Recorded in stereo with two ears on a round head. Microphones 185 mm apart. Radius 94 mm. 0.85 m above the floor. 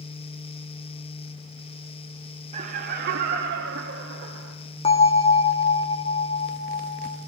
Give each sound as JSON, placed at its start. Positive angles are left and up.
{"t": 2.5, "sound": "laughter", "side_deg": -30, "distance_m": 0.6}
{"t": 4.8, "sound": "a bell", "side_deg": 25, "distance_m": 1.2}